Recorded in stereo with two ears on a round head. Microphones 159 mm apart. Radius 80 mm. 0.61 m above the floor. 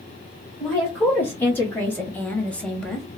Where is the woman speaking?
10° left (ahead or behind), 1.6 m; by 3.1 s centre (ahead or behind), 0.7 m.